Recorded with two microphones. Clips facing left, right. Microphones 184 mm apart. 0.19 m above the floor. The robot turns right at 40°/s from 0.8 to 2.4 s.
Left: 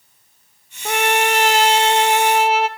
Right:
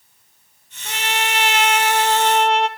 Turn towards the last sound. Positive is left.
turn(degrees=175)